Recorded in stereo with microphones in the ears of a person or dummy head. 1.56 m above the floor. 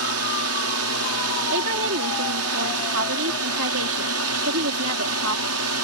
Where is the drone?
70° right (ahead or behind); by 5.8 s 75° right (ahead or behind).